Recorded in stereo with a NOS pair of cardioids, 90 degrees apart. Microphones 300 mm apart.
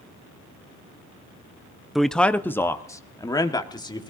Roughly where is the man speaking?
Ahead.